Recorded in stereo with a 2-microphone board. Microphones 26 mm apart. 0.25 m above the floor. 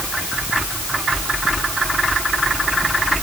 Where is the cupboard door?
I don't hear a cupboard door.